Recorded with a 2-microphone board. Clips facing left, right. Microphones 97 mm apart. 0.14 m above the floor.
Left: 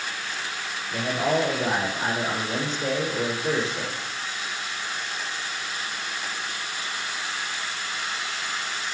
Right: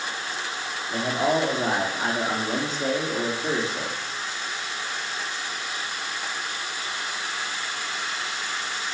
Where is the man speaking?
45° right (ahead or behind), 5 m.